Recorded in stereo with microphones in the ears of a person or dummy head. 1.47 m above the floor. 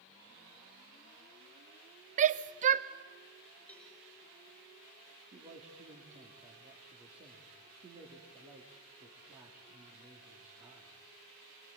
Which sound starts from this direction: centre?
A cowbell, at 3.7 s.